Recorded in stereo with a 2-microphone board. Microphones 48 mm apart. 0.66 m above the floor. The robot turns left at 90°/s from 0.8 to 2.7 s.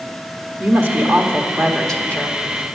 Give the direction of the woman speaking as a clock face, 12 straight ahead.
3 o'clock.